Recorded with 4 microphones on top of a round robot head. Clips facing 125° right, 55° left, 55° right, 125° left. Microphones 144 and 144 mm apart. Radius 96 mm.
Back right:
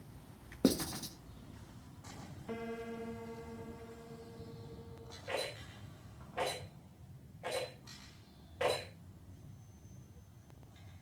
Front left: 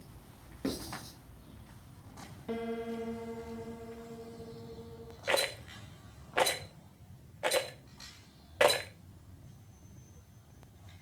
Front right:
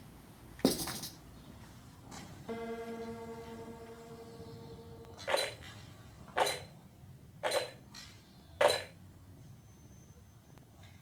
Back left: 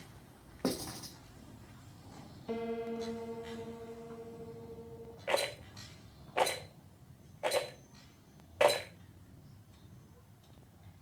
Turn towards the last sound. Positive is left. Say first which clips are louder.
# front left 8 dB, back left 1 dB
turn(degrees=50)